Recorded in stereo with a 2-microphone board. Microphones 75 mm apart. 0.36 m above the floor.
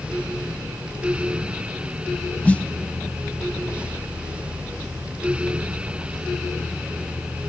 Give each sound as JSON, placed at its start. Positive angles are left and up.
{"t": 2.5, "sound": "a snare drum", "side_deg": 20, "distance_m": 0.9}